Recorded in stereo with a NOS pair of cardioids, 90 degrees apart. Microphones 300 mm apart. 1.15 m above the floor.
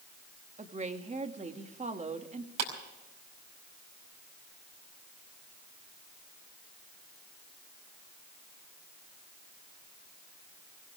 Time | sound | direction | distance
0.6 | a woman speaking | 25° right | 2.0 m
2.6 | a clap | 70° right | 5 m